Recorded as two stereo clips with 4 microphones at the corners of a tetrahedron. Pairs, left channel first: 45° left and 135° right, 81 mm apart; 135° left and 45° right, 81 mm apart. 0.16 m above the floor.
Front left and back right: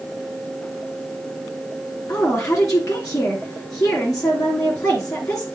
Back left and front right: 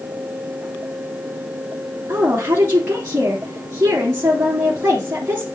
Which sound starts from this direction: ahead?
A woman speaking, at 2.1 s.